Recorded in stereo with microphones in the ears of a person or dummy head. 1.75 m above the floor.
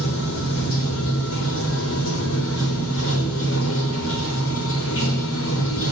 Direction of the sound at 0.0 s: 70° left (ahead or behind).